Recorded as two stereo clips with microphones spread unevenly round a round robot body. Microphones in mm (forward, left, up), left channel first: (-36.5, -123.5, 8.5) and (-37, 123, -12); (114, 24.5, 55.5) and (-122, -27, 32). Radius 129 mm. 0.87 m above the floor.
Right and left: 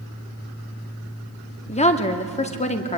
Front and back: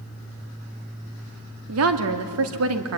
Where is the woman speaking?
155° right, 2.0 m.